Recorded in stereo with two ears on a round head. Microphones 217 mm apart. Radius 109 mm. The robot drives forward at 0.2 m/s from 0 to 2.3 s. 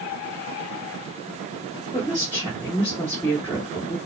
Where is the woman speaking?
10° left (ahead or behind), 1.3 m.